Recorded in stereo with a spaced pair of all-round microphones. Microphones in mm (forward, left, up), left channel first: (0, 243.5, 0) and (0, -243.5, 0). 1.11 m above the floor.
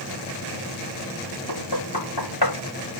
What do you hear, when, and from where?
1.5 s knocking: 55° left (ahead or behind)